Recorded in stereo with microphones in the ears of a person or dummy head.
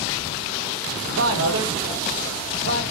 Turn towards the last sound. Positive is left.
turn(degrees=-75)  # may be behind; listen again after turning